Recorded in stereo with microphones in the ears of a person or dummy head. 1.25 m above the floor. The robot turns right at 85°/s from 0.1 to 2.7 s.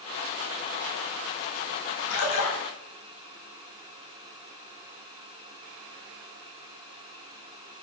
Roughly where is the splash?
Ahead left.